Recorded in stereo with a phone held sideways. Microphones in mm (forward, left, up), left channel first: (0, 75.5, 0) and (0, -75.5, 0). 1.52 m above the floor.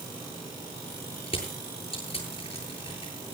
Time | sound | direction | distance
1.3 | crushing | 40° left (ahead or behind) | 10 m